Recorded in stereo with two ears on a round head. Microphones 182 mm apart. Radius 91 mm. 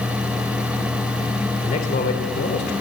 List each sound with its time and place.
1.6 s a man speaking: 35° left (ahead or behind), 2.5 m; by 2.7 s 50° left (ahead or behind), 3 m